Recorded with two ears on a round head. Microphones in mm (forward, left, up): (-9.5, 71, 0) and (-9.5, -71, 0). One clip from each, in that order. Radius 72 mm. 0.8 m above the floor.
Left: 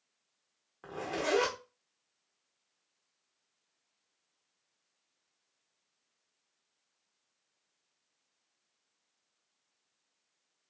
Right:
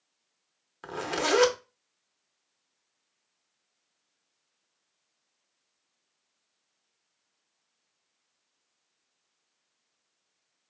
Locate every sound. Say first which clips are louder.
0.8 s a zipper: right 5 dB; 65° right (ahead or behind), 0.8 m